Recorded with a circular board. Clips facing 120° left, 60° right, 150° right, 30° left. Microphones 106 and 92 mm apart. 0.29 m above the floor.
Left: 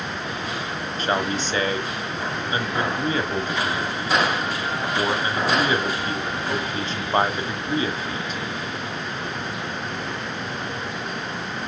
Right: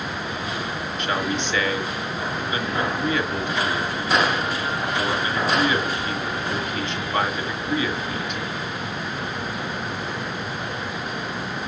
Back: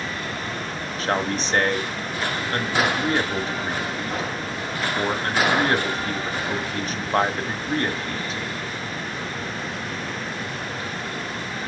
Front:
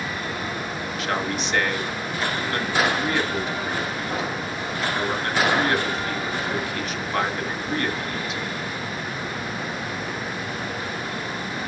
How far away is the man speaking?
About 1.4 m.